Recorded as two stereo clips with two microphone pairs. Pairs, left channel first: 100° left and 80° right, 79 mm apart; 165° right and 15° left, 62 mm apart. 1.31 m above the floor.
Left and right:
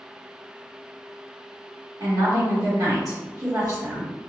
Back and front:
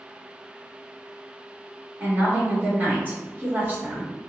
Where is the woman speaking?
45° right, 1.5 m.